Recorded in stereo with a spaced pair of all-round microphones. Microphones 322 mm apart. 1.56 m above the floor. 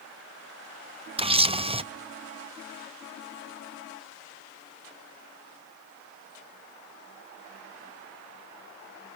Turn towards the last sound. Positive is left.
turn(degrees=-15)  # may be behind; listen again after turning